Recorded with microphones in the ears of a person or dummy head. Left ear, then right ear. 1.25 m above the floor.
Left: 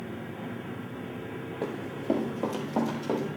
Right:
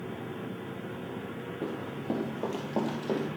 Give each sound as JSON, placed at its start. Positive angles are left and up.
{"t": 1.6, "sound": "running footsteps", "side_deg": 25, "distance_m": 1.3}